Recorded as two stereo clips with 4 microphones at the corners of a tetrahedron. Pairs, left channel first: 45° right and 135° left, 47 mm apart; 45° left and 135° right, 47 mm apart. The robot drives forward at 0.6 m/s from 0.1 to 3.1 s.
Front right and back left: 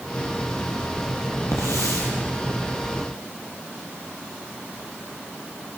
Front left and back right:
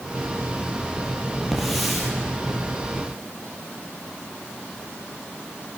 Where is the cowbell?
No cowbell in this recording.